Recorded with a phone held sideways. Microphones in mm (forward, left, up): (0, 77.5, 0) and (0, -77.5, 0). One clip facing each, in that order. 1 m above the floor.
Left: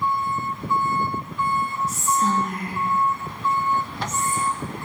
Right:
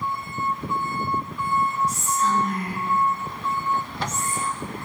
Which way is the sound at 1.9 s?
50° left (ahead or behind).